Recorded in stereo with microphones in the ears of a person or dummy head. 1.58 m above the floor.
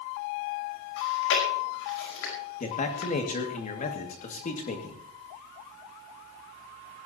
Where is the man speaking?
40° left (ahead or behind), 2.5 m.